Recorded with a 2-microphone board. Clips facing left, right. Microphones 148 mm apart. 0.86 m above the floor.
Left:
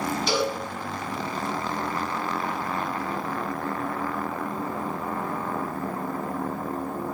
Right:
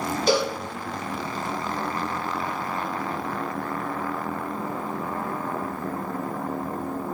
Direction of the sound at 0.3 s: 45° right (ahead or behind).